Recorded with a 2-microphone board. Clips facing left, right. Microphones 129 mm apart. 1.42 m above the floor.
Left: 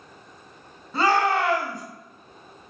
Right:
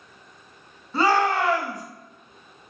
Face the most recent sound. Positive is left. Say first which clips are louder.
# even
turn(degrees=0)  # may be behind; listen again after turning